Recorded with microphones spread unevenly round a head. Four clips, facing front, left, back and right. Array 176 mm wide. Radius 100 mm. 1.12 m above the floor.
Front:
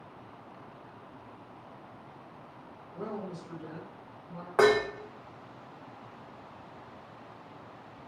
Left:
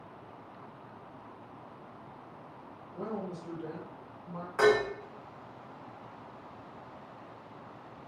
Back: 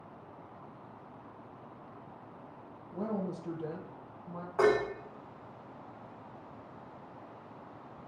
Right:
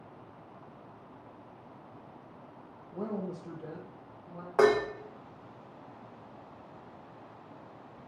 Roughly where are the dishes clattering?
Ahead right.